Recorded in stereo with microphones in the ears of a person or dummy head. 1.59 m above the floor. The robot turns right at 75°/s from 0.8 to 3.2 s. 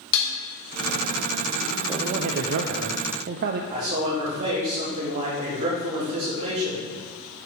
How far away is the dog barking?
I don't hear a dog barking.